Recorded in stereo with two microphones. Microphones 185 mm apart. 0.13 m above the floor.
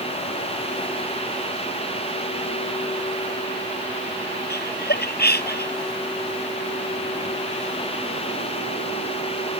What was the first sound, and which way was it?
Laughter, 60° left (ahead or behind).